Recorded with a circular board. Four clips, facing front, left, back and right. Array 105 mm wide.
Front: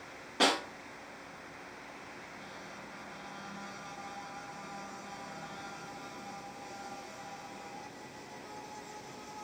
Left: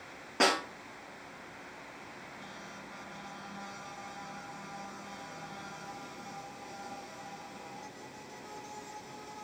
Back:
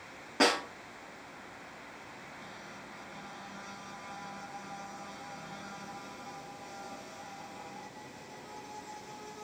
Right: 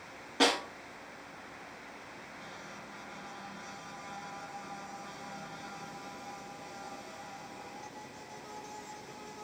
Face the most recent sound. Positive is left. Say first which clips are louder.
# even, back 2 dB
turn(degrees=130)